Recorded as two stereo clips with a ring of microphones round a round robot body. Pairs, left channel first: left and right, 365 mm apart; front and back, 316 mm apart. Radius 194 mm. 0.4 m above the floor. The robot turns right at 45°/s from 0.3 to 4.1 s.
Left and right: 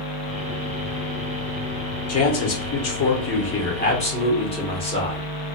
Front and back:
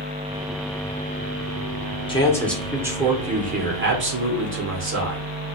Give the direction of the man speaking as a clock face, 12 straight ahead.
10 o'clock.